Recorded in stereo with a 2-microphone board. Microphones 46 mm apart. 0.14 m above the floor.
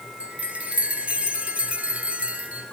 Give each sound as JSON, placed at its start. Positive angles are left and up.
{"t": 0.2, "sound": "a chime", "side_deg": -30, "distance_m": 1.4}